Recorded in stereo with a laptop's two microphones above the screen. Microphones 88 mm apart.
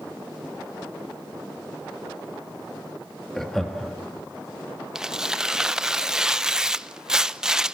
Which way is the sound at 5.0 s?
5° right (ahead or behind).